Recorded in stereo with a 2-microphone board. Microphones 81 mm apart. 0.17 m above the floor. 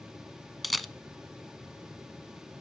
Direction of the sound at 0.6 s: Centre (ahead or behind).